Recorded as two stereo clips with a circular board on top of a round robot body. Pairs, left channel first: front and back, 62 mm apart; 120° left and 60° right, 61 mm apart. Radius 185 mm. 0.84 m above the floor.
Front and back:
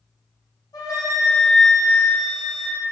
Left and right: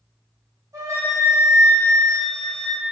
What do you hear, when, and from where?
0.7 s a flute: 25° right, 2.0 m